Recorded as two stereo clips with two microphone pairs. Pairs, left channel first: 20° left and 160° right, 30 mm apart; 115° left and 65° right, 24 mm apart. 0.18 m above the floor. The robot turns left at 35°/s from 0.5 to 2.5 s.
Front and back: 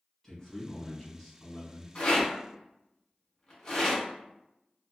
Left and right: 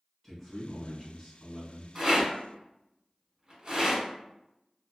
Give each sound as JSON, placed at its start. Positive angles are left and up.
{"t": 0.2, "sound": "a man speaking", "azimuth_deg": 35, "distance_m": 1.3}
{"t": 1.9, "sound": "a rattle", "azimuth_deg": -15, "distance_m": 1.5}